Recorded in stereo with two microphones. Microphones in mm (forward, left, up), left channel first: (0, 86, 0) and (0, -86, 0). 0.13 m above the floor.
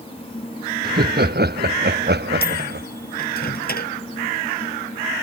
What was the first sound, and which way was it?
Laughter, 65° right (ahead or behind).